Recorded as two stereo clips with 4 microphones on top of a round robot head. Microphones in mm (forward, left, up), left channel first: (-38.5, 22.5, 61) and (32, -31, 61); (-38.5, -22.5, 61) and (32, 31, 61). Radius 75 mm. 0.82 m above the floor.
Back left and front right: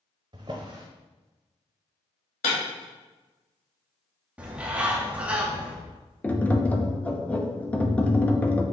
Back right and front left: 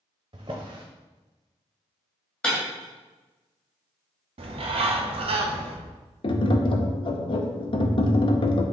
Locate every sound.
0.3 s a drawer: 5° left, 0.7 m
2.4 s breaking glass: 140° left, 2.5 m
4.4 s a bird: 40° left, 0.9 m
6.2 s tapping: 145° right, 0.8 m